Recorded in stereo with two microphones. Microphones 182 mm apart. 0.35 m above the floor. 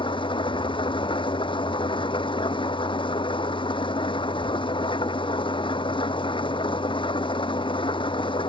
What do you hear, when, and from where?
0.0 s an engine running: 30° left (ahead or behind)